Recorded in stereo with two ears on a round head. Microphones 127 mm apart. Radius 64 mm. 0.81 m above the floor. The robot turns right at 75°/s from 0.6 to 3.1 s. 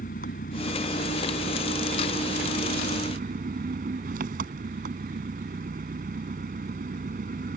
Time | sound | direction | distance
0.0 | an engine running | 110° left | ?